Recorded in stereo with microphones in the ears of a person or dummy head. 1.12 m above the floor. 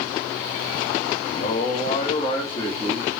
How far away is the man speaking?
About 1.7 m.